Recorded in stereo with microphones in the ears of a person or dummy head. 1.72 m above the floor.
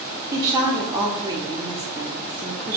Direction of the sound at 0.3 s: 15° right (ahead or behind).